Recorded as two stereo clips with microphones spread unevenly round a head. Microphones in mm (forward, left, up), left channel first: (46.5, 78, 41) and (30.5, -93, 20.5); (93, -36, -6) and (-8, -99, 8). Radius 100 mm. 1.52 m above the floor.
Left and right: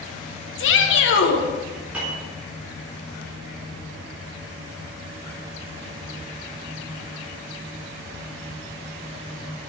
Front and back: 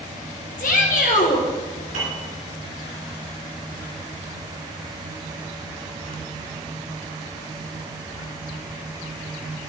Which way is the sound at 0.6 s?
75° left.